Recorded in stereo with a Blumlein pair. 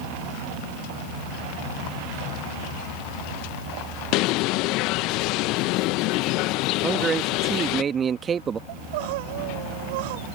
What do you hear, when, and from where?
4.1 s a bird: 40° left
6.8 s a man speaking: 20° right
8.7 s crying: 50° right